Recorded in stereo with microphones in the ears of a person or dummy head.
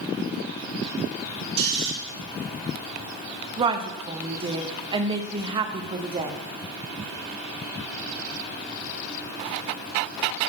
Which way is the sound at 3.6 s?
25° right (ahead or behind).